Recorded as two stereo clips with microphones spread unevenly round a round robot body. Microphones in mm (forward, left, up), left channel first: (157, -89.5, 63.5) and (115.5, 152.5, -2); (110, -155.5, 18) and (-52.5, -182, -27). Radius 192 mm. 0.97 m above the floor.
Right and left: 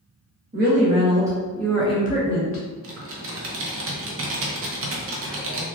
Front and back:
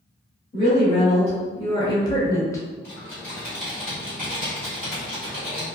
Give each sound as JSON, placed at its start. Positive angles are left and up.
{"t": 0.5, "sound": "a woman speaking", "azimuth_deg": 90, "distance_m": 1.0}
{"t": 2.8, "sound": "typing on a keyboard", "azimuth_deg": 75, "distance_m": 0.7}